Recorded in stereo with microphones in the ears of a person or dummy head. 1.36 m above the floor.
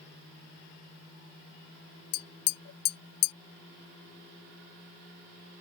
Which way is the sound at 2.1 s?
60° left (ahead or behind).